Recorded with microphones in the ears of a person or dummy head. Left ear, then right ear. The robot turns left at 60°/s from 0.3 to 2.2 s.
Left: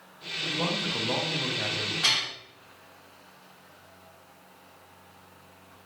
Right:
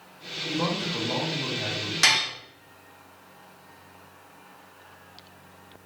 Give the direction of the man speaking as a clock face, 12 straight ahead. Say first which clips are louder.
Right 1 dB; 6 o'clock.